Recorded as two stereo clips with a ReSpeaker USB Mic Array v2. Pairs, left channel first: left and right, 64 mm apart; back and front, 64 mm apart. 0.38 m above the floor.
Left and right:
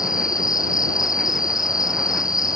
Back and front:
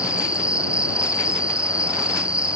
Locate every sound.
0.0 s an insect: 75° left